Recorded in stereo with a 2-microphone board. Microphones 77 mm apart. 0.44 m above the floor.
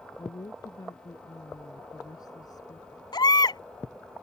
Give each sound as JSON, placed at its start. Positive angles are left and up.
{"t": 0.2, "sound": "a woman speaking", "side_deg": 60}
{"t": 3.1, "sound": "a baby crying", "side_deg": 75}